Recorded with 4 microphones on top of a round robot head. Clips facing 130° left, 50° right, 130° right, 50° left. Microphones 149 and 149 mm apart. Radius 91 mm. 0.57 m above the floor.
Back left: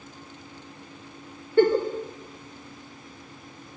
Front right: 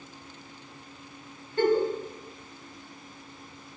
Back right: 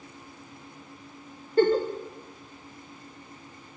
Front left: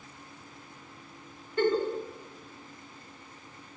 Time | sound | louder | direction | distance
1.6 | a giggle | back left 4 dB, back right 5 dB | 170° left | 0.6 m